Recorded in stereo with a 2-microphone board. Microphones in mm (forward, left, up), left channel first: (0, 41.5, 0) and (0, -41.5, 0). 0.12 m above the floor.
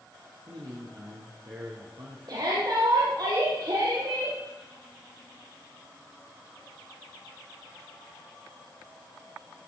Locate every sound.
0.5 s a man speaking: 65° right (ahead or behind), 3 m
2.3 s a shout: 55° right (ahead or behind), 4.5 m